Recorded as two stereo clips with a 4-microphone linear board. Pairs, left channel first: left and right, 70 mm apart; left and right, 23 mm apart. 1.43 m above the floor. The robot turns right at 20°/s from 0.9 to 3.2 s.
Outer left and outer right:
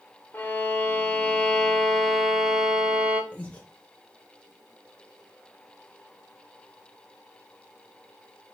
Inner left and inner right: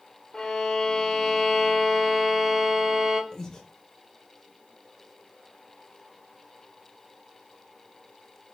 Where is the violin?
150° left, 0.7 m; by 3.2 s 160° right, 0.7 m.